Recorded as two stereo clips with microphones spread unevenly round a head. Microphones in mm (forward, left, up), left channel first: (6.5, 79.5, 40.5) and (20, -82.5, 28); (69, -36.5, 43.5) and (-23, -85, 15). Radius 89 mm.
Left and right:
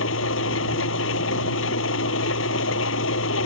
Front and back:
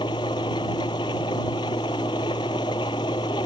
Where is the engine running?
95° left.